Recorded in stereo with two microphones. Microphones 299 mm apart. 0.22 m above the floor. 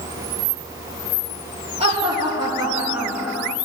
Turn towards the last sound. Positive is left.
turn(degrees=5)  # may be behind; listen again after turning